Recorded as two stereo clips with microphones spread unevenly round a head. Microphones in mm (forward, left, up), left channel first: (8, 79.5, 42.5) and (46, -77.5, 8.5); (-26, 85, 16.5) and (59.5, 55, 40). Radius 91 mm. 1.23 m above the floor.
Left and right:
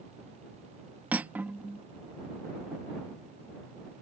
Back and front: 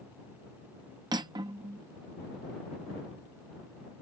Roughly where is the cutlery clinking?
Ahead.